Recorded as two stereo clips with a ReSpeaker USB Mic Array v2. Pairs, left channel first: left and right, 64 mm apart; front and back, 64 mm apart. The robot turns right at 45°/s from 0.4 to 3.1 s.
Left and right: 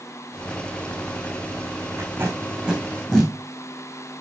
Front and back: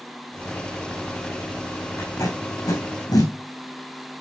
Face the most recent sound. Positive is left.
turn(degrees=10)